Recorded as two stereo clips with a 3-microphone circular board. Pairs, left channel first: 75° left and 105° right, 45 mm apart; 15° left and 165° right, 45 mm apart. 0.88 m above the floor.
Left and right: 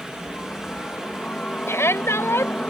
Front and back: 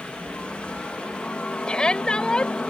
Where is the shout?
85° left.